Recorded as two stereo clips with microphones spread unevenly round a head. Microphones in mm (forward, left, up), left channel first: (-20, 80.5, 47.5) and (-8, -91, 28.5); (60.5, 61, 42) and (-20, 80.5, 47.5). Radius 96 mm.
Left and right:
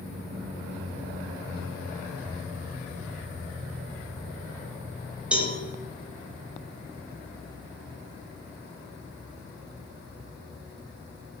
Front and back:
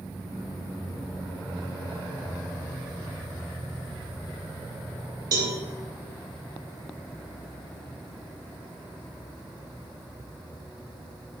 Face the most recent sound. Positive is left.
turn(degrees=-175)